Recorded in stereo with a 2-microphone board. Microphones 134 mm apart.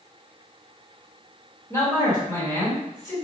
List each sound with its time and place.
1.7 s a man speaking: 25° left (ahead or behind), 1.4 m